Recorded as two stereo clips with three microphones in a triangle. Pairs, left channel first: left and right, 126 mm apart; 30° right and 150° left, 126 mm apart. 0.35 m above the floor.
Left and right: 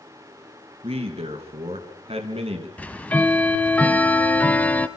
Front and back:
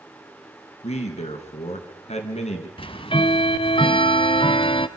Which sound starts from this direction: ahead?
Ticking, at 2.8 s.